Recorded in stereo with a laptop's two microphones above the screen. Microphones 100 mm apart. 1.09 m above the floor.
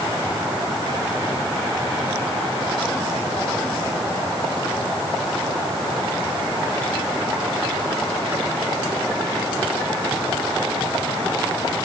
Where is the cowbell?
No cowbell in this recording.